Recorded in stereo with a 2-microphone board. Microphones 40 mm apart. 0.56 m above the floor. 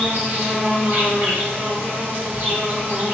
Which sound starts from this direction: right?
An insect, at 0.0 s.